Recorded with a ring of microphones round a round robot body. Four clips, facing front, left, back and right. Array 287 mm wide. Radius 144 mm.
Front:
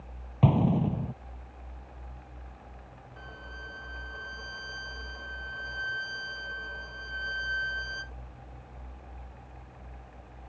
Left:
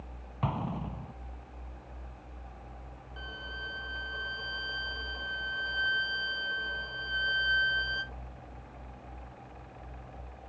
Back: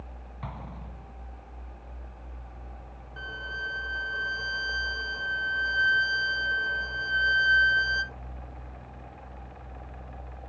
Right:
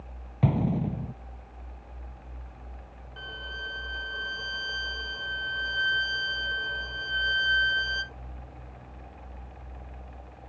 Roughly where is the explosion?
Ahead right.